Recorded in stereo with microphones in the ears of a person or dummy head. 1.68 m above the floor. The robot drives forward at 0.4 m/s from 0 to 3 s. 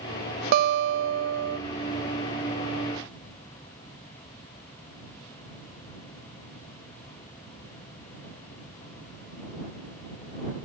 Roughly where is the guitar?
Right.